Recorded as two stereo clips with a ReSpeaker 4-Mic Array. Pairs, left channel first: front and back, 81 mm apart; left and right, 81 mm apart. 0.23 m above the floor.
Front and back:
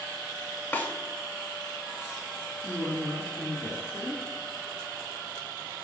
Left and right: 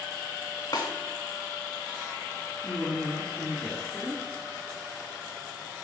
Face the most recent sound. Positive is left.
turn(degrees=15)